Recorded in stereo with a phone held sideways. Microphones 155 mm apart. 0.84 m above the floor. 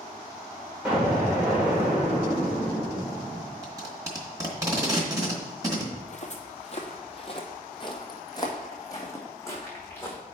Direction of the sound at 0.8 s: 5° right (ahead or behind).